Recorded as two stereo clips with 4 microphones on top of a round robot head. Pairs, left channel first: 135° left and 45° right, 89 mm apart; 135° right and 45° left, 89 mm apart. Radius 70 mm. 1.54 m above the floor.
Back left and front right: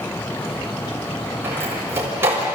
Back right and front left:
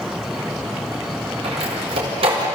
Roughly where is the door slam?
Ahead.